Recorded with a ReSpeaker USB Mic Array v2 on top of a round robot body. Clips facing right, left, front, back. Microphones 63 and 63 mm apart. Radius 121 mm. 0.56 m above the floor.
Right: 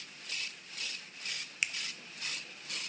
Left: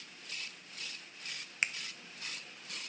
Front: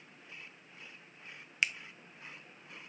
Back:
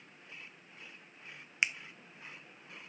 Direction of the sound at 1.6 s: 120° left.